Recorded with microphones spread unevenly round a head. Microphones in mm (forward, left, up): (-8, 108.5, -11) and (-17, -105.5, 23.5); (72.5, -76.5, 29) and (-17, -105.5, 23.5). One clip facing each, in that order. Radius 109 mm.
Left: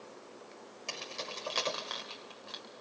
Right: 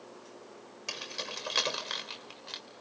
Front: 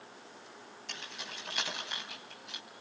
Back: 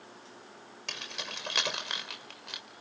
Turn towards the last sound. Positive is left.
turn(degrees=-140)